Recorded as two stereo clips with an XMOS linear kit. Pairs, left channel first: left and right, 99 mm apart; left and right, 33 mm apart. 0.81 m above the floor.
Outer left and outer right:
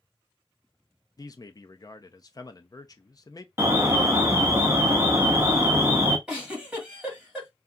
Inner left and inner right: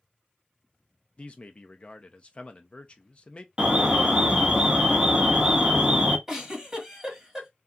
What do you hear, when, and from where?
1.2 s a man speaking: 40° left (ahead or behind), 0.6 m
3.6 s an alarm: 25° right (ahead or behind), 0.8 m
6.3 s a giggle: 10° right (ahead or behind), 1.8 m